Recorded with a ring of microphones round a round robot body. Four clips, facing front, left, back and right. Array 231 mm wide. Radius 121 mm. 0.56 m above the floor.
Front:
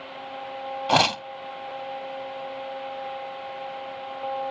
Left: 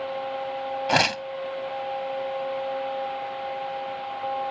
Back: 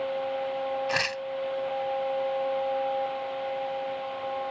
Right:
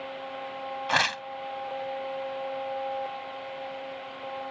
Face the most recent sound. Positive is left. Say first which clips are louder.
# left 4 dB, front 8 dB
turn(degrees=35)